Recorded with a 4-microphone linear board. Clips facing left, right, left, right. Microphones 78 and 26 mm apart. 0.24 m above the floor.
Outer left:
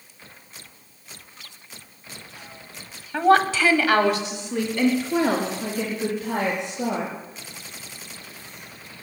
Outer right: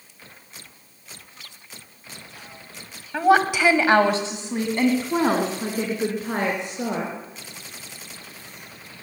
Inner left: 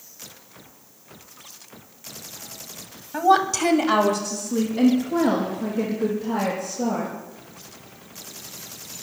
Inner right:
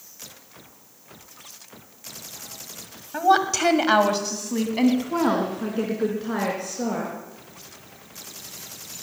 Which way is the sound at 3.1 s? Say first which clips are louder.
Even, inner left 1 dB; 5° right (ahead or behind).